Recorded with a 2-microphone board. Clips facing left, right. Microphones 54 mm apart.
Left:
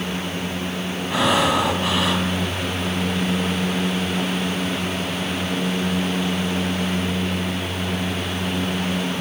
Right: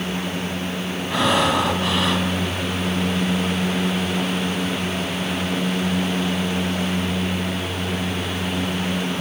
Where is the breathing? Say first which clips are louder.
Even; 5° left (ahead or behind), 2.5 m.